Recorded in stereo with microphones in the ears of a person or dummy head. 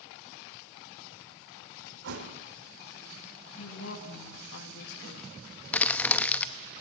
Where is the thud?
75° right (ahead or behind), 2 m.